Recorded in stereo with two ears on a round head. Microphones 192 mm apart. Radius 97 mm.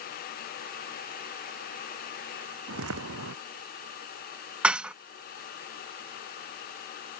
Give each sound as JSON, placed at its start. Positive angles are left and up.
{"t": 2.7, "sound": "footsteps", "side_deg": -70}
{"t": 4.6, "sound": "dishes clattering", "side_deg": -5}